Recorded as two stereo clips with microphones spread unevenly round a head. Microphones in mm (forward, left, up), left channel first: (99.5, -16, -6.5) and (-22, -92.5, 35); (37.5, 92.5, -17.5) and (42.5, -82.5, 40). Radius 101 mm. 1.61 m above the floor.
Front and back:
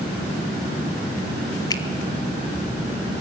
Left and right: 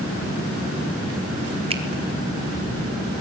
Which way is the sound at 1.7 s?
35° right.